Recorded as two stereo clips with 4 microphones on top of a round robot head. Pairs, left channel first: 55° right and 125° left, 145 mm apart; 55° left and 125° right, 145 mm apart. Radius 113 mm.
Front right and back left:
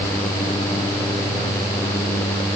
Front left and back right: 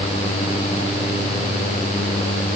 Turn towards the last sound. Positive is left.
No sound to turn to.